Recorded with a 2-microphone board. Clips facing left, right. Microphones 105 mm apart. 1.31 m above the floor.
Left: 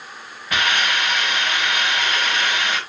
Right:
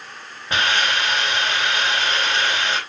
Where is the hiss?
30° right (ahead or behind), 4 m.